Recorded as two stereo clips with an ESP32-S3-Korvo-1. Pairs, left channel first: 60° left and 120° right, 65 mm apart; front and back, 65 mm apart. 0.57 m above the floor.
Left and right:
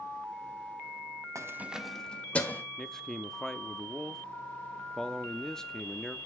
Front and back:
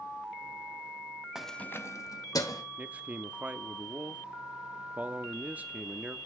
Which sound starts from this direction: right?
Keys jangling, at 1.4 s.